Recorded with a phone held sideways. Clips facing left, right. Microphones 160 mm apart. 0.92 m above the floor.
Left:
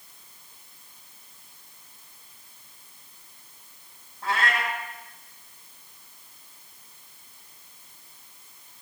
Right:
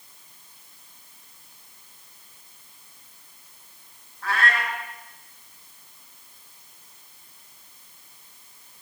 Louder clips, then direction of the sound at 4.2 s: Right 1 dB; 25° left (ahead or behind).